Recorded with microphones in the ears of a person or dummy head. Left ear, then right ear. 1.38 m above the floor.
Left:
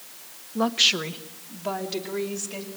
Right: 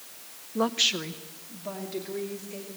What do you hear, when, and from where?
0.6 s a woman speaking: 15° right (ahead or behind), 0.5 m; by 2.7 s 45° left (ahead or behind), 3 m